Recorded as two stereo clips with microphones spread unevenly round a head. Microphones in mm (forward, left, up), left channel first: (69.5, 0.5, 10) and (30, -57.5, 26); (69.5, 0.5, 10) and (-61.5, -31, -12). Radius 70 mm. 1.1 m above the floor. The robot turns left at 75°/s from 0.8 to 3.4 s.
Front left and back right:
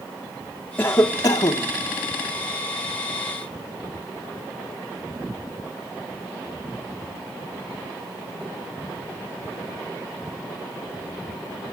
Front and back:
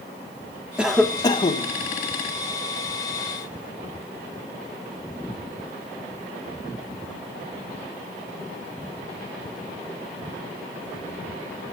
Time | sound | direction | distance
0.8 | a cough | 115° left | 1.3 m